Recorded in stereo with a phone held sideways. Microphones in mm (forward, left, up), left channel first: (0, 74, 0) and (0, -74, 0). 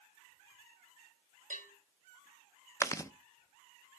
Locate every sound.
1.5 s a bell: 60° right (ahead or behind), 6 m
2.8 s chewing: 20° left (ahead or behind), 0.7 m